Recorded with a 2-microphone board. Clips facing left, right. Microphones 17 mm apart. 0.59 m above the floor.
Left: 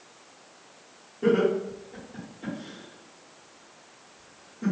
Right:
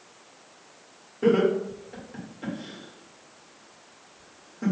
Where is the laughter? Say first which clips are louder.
Right 1 dB; 45° right (ahead or behind), 1.9 m.